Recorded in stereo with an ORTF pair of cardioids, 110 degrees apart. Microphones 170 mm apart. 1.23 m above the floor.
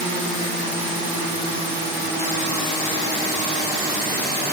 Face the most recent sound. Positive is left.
No sound to turn to.